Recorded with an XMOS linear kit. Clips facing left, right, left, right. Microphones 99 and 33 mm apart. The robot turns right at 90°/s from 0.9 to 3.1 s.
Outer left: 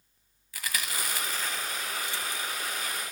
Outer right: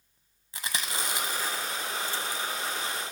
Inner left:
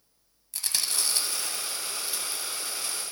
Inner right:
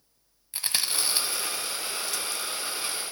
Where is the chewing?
25° right (ahead or behind), 1.0 m; by 3.1 s 20° left (ahead or behind), 1.0 m.